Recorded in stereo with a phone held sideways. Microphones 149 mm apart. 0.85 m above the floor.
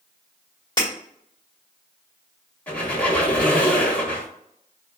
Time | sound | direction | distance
0.8 | breaking glass | 30° left (ahead or behind) | 1.8 m
2.7 | a squeak | 10° left (ahead or behind) | 1.7 m